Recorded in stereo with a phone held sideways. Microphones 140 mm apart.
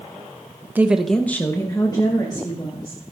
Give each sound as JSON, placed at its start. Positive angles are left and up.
{"t": 0.8, "sound": "a woman speaking", "side_deg": -15, "distance_m": 0.8}